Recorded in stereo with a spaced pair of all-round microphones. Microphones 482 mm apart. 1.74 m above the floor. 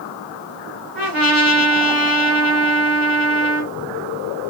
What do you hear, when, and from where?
0.9 s a trumpet: 20° left (ahead or behind), 1.6 m